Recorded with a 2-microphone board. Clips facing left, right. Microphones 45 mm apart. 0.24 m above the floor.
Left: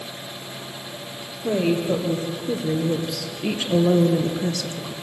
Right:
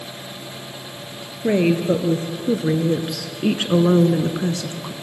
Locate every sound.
1.4 s a woman speaking: 75° right (ahead or behind), 3.5 m; by 4.9 s 25° right (ahead or behind), 1.9 m